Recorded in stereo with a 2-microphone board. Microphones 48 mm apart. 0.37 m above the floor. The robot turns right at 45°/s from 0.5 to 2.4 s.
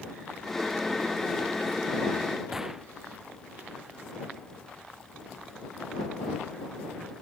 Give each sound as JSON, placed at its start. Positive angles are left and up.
{"t": 2.5, "sound": "a gunshot", "side_deg": -10}